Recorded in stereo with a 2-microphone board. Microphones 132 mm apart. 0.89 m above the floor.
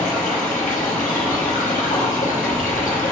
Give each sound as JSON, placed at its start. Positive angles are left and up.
{"t": 0.0, "sound": "running water", "side_deg": 85, "distance_m": 0.9}